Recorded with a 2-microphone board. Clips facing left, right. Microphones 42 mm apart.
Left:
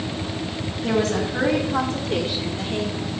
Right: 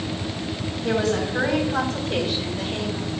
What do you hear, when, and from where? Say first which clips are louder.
0.8 s a woman speaking: left 1 dB; 60° left (ahead or behind), 3.5 m; by 3.1 s 35° left (ahead or behind), 3.5 m